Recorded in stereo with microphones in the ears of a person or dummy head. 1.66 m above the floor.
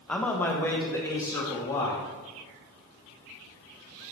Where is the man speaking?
Centre (ahead or behind), 0.9 m; by 2.1 s 15° left (ahead or behind), 2 m.